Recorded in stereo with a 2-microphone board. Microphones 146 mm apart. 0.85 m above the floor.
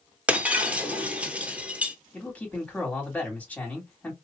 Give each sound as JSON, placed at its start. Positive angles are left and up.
{"t": 0.3, "sound": "breaking glass", "side_deg": -10, "distance_m": 0.9}
{"t": 2.1, "sound": "a man speaking", "side_deg": 10, "distance_m": 2.5}